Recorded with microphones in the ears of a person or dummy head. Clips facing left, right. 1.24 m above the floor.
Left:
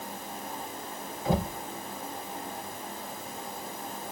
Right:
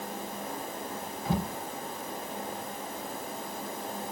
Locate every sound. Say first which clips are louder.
1.2 s knocking: left 3 dB; 65° left (ahead or behind), 3 m